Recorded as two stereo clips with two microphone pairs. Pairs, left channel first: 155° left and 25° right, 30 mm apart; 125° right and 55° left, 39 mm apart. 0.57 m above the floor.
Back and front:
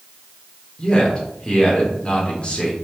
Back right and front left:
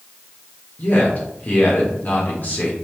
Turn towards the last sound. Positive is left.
turn(degrees=-155)